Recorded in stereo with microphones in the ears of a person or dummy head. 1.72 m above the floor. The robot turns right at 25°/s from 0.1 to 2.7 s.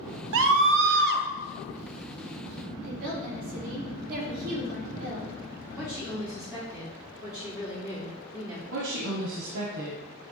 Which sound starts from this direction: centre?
A woman speaking, at 5.8 s.